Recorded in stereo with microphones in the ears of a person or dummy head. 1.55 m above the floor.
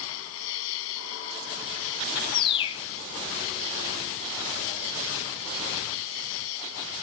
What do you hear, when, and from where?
0.0 s an insect: 80° left
2.3 s a bird: 25° left (ahead or behind)